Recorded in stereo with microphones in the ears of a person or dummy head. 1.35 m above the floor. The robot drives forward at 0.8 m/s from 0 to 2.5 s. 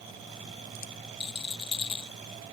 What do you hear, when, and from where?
1.2 s a rattle: 30° left (ahead or behind)